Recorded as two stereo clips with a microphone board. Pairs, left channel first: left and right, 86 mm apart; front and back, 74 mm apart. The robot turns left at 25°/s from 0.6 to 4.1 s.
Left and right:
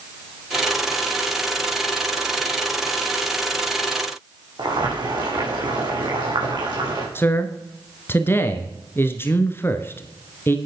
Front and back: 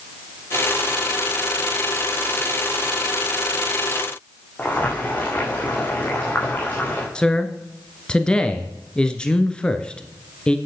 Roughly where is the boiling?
Ahead right.